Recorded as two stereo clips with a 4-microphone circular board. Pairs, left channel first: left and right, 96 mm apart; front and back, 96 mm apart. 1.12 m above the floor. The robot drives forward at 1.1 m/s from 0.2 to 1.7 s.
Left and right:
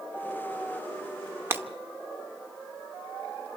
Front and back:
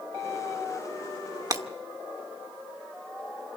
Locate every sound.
1.5 s breaking glass: 145° right, 0.9 m; by 1.6 s 150° right, 1.0 m